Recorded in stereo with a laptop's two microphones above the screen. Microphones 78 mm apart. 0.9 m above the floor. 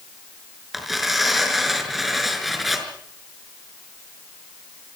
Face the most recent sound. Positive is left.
turn(degrees=0)  # may be behind; listen again after turning